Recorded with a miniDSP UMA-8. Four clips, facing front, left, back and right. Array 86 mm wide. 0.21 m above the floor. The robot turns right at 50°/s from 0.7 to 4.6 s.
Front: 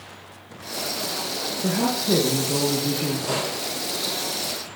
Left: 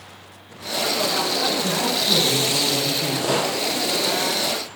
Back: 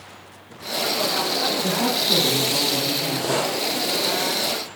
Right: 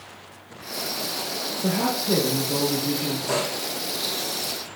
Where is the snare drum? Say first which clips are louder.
Left 5 dB, back 4 dB; 90° left, 3.5 m; by 3.6 s 105° left, 3.5 m.